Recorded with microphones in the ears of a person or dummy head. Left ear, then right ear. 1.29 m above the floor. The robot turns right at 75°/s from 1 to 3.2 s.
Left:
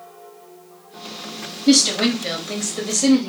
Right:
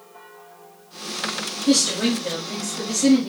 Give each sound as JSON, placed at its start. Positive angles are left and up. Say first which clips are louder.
{"t": 1.7, "sound": "a woman speaking", "louder": "left 4 dB", "azimuth_deg": 15, "distance_m": 0.9}